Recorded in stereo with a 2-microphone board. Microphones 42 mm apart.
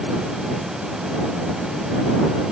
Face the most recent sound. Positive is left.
No sound to turn to.